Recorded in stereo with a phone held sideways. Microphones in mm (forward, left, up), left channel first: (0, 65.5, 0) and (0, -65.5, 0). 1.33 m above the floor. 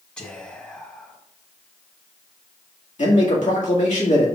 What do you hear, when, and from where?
0.2 s whispering: 10° left (ahead or behind), 1.4 m
3.0 s a man speaking: 65° left (ahead or behind), 1.9 m